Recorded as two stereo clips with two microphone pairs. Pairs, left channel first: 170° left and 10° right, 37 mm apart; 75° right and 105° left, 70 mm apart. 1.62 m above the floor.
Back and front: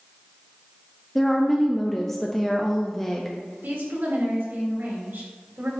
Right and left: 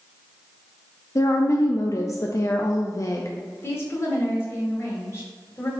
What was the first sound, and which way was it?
A woman speaking, 115° right.